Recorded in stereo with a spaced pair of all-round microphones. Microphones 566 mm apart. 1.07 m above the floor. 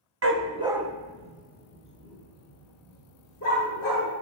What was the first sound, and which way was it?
A dog barking, 25° right (ahead or behind).